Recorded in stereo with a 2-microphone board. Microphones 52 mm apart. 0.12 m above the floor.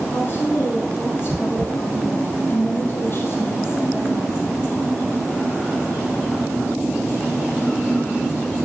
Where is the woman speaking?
45° left (ahead or behind), 3.5 m.